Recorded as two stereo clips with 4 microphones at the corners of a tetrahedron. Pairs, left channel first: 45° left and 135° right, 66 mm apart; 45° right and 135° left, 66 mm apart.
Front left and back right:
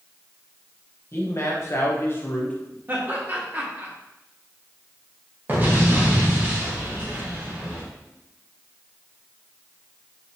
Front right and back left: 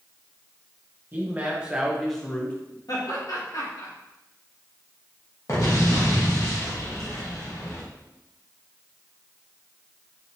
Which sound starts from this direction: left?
A man speaking, at 1.1 s.